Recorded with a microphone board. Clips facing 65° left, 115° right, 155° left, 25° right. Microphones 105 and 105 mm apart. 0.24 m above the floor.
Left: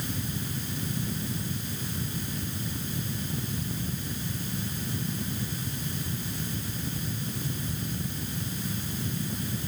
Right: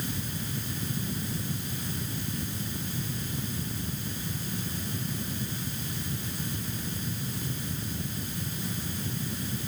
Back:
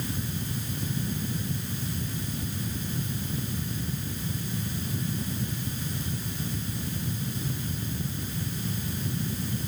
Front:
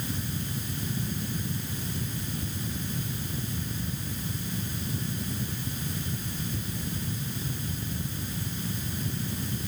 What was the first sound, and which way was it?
Only background noise.